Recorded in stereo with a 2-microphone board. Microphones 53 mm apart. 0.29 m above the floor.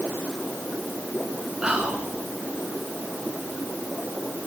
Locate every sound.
1.6 s whispering: 15° right (ahead or behind), 2.5 m